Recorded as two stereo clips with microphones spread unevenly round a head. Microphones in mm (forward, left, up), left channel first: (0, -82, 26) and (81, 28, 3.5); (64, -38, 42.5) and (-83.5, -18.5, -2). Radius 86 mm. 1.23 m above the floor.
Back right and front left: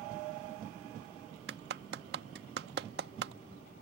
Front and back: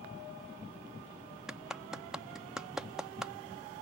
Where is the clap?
80° left.